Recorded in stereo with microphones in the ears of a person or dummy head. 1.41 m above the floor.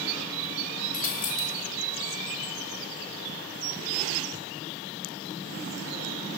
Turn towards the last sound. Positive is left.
turn(degrees=45)  # may be behind; listen again after turning